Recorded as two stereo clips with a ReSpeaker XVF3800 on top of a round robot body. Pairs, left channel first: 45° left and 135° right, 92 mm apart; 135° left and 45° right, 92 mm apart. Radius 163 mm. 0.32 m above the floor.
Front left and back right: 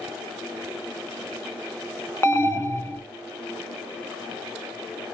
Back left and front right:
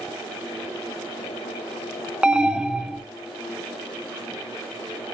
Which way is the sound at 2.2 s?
30° left.